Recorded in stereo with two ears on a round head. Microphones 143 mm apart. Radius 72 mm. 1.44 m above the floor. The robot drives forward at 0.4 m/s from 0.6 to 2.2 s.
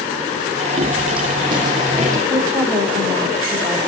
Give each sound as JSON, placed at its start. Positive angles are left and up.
{"t": 0.8, "sound": "footsteps", "side_deg": -35, "distance_m": 4.5}
{"t": 2.3, "sound": "a woman speaking", "side_deg": 5, "distance_m": 6.5}